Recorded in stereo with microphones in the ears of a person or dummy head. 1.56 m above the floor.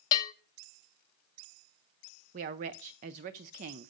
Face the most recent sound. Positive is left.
turn(degrees=-40)  # may be behind; listen again after turning